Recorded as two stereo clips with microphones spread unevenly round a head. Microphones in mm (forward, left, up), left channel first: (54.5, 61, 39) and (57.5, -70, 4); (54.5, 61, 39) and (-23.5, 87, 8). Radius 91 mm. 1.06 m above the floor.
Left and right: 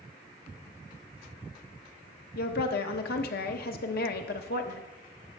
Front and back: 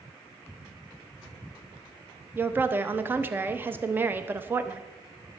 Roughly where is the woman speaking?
Left.